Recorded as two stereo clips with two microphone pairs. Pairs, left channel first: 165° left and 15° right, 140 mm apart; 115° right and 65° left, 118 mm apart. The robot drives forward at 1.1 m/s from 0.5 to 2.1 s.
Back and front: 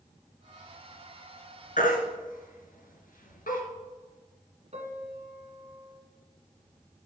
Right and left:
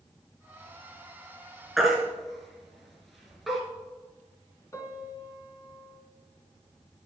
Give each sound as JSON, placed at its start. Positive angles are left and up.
{"t": 1.8, "sound": "a baby crying", "azimuth_deg": 155, "distance_m": 2.0}
{"t": 4.7, "sound": "a piano", "azimuth_deg": -50, "distance_m": 1.8}